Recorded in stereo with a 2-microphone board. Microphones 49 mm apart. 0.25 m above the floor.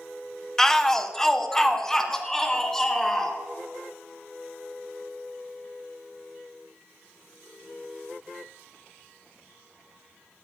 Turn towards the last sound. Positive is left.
turn(degrees=10)  # may be behind; listen again after turning